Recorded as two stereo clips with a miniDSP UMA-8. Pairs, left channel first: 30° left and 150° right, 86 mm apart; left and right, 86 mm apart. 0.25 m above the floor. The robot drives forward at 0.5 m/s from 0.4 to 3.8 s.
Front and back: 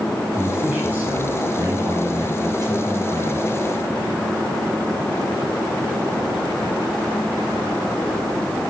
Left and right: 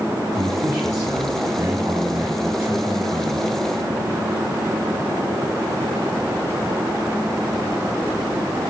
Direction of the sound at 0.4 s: 85° right.